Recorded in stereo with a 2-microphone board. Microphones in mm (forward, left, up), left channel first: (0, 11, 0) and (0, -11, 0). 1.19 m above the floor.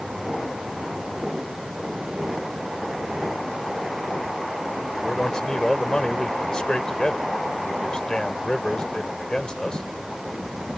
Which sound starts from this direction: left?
A man speaking, at 5.0 s.